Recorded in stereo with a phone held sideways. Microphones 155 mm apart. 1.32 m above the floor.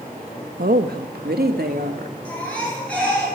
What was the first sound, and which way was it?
A woman speaking, 70° right (ahead or behind).